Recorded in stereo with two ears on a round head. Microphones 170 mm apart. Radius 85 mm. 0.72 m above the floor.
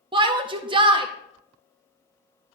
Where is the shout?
25° right (ahead or behind), 0.6 m.